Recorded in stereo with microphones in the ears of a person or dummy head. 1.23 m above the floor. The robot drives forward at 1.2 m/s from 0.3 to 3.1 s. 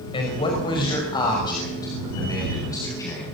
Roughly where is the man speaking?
Left.